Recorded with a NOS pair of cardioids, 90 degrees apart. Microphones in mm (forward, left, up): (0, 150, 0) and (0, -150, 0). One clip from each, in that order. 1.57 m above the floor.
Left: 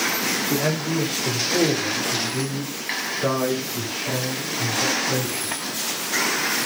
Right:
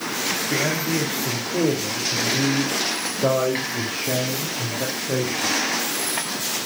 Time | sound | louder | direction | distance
0.5 | a man speaking | right 1 dB | 15° left | 3 m